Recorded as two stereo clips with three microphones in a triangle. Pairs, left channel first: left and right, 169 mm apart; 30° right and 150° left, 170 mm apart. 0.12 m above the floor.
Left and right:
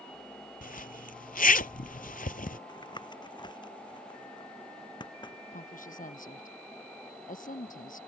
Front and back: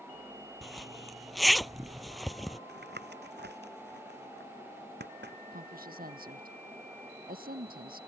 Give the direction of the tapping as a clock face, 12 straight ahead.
7 o'clock.